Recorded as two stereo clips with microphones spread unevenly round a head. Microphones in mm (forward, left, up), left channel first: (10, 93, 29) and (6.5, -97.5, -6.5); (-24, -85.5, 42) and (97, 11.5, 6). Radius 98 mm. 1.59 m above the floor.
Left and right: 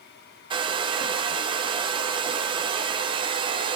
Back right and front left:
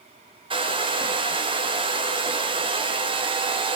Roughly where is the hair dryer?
Ahead.